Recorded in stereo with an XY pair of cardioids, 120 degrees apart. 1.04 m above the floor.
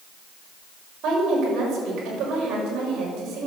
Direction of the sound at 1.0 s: 70° right.